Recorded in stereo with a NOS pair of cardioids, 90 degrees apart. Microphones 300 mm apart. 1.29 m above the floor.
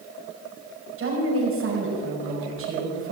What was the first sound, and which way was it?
A woman speaking, 45° right.